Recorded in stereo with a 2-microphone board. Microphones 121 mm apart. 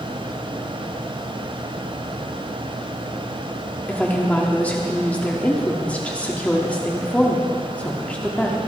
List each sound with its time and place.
3.9 s a woman speaking: 10° left (ahead or behind), 1.5 m